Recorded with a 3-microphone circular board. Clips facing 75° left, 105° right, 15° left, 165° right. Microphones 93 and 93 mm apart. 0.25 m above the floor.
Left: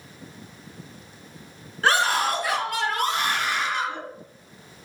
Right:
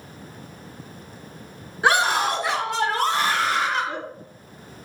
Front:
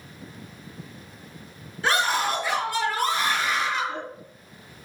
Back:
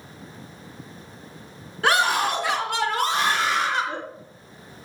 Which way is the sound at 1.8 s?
Straight behind.